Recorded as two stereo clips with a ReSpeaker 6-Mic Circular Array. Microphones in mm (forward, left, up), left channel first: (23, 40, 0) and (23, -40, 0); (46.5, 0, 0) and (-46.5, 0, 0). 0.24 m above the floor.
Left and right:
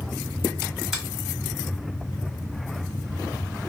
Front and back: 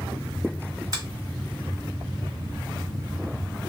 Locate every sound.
0.9 s a finger snap: 175° right, 1.4 m